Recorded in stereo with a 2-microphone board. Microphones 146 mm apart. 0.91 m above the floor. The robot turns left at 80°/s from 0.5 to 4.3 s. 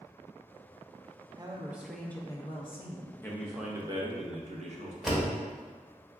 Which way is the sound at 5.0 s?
Centre (ahead or behind).